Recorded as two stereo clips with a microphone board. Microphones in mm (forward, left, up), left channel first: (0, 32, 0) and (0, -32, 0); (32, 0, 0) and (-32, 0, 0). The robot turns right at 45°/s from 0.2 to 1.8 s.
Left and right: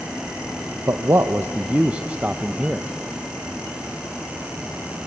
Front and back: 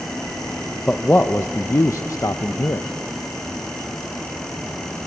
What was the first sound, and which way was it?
A man speaking, 70° right.